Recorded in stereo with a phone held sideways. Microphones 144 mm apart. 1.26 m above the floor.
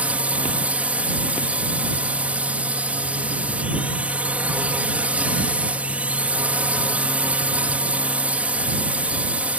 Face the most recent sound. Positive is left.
turn(degrees=-10)  # may be behind; listen again after turning